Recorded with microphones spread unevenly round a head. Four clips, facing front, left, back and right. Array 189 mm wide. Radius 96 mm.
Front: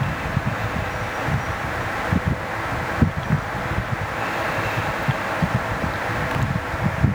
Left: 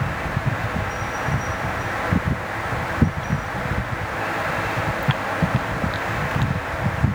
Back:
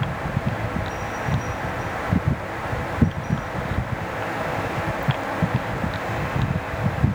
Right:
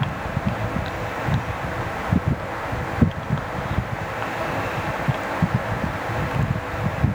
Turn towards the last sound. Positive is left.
No sound to turn to.